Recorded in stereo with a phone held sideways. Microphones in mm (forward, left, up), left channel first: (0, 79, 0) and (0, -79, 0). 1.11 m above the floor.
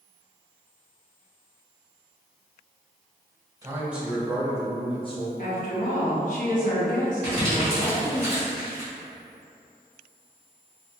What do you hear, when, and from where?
3.6 s a man speaking: 20° right (ahead or behind), 1.0 m; by 5.3 s 40° left (ahead or behind), 1.3 m
5.4 s a woman speaking: 55° left (ahead or behind), 1.1 m
7.2 s crumpling: 65° left (ahead or behind), 1.8 m